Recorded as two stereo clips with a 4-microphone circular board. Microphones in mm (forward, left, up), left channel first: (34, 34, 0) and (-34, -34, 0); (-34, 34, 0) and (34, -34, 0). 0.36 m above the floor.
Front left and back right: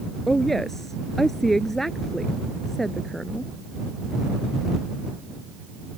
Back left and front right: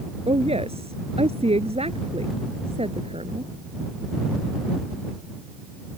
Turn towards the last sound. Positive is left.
turn(degrees=-40)